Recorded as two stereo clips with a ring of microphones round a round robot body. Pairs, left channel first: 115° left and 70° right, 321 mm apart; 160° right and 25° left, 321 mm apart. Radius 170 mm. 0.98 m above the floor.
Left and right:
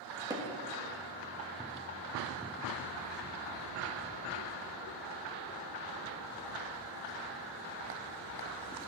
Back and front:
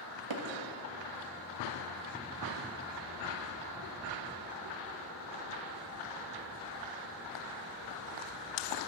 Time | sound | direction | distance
0.3 | hammering | 10° left | 1.4 m